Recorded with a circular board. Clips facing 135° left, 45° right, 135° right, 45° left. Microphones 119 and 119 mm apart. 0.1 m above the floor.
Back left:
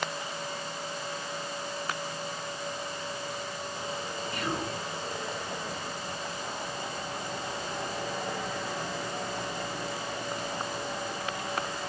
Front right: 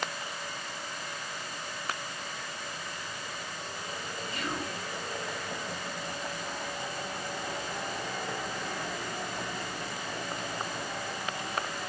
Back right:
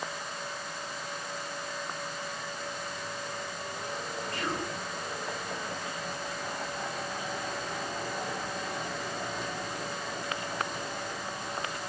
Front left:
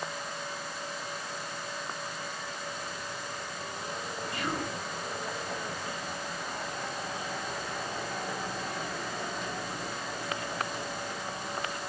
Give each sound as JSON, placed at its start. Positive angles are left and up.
{"t": 4.3, "sound": "whispering", "azimuth_deg": 115, "distance_m": 3.0}